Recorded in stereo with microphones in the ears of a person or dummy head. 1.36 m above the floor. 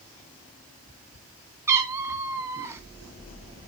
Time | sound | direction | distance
1.7 | a cat meowing | 15° right (ahead or behind) | 2 m